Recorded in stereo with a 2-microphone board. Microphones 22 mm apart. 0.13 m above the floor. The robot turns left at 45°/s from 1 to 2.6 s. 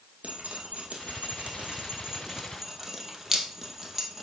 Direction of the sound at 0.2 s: 70° right (ahead or behind).